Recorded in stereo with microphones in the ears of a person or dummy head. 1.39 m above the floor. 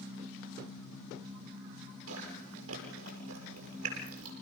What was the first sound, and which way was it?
Chewing, 75° right (ahead or behind).